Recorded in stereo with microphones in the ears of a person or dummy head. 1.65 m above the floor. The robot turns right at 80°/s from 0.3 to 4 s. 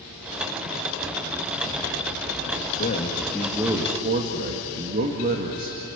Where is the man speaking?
130° left, 1.9 m; by 6.0 s 135° right, 1.9 m.